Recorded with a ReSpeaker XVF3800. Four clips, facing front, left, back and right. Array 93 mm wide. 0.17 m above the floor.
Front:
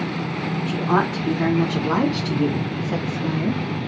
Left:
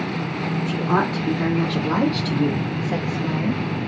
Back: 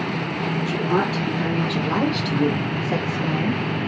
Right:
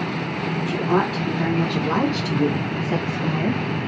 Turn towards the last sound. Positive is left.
turn(degrees=-130)